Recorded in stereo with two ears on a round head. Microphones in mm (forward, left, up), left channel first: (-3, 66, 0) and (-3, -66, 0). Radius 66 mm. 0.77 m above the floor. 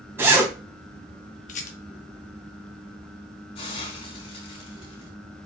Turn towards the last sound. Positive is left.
turn(degrees=40)  # may be behind; listen again after turning